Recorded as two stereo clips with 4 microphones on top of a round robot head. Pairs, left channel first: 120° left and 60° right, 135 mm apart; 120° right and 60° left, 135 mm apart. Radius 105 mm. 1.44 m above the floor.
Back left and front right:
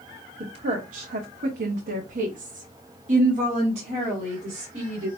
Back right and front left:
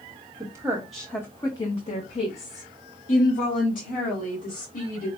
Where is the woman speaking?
5° right, 0.9 m; by 5.1 s 105° right, 3 m.